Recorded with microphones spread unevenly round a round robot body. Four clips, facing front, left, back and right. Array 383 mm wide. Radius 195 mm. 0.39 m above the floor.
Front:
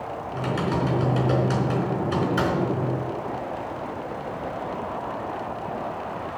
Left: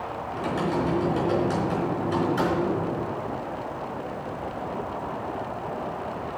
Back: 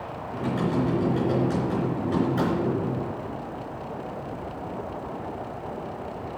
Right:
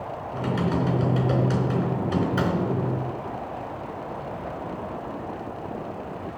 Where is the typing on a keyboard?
40° right, 3.5 m.